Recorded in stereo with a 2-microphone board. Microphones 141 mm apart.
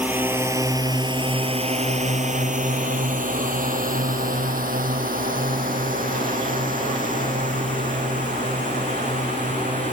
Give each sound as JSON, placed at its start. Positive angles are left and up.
{"t": 0.0, "sound": "a drone", "side_deg": -10}